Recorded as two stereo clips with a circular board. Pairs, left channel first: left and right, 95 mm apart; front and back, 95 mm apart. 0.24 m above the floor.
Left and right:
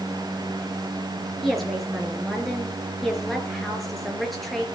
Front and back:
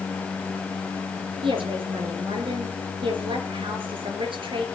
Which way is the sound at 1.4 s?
Straight behind.